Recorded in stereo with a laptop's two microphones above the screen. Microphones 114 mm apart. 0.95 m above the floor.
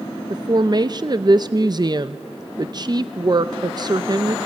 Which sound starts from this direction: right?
A woman speaking, at 0.3 s.